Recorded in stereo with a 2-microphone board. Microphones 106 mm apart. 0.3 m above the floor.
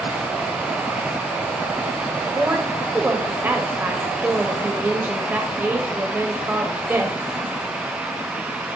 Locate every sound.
2.4 s a woman speaking: 20° right (ahead or behind), 0.9 m